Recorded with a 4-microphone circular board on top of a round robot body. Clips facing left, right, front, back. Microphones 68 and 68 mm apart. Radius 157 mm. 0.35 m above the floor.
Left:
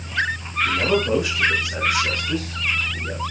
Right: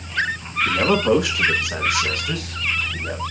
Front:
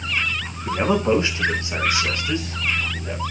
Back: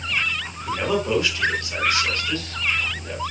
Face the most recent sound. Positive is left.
turn(degrees=-80)